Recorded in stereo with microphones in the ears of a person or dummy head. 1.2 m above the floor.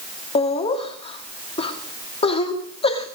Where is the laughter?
30° left (ahead or behind), 2 m.